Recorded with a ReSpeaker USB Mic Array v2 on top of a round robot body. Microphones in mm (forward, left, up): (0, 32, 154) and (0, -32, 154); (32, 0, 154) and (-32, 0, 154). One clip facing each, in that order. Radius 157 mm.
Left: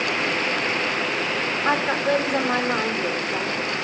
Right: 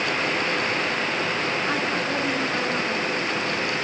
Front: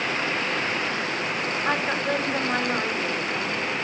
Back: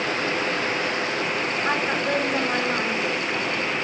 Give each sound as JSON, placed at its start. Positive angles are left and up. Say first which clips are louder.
{"t": 1.6, "sound": "a woman speaking", "louder": "left 4 dB, even", "azimuth_deg": 105, "distance_m": 3.5}